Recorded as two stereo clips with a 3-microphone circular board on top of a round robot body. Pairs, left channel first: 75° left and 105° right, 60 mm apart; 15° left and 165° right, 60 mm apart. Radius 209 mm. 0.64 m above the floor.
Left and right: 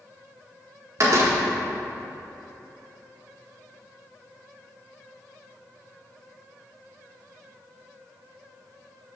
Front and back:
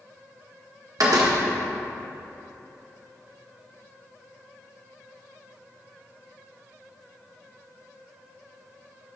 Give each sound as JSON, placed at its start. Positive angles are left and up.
{"t": 1.0, "sound": "a door slam", "azimuth_deg": -145, "distance_m": 1.4}